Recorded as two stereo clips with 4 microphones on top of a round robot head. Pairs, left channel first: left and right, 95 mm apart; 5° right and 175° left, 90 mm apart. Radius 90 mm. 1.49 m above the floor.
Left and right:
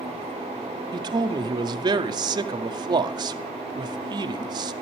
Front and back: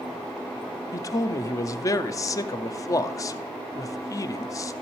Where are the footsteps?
No footsteps in this recording.